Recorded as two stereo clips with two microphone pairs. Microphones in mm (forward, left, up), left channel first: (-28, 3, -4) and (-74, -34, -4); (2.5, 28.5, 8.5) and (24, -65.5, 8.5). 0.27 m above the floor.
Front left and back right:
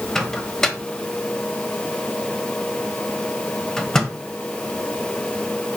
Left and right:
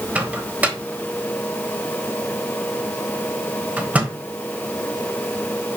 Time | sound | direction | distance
0.1 | a microwave | 35° right | 1.3 m